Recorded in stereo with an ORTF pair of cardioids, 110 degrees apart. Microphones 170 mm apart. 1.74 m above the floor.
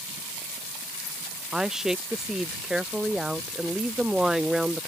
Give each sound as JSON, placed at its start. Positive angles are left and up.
{"t": 1.5, "sound": "a woman speaking", "azimuth_deg": -5}